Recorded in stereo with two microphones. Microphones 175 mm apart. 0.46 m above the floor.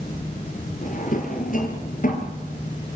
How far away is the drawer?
About 3 m.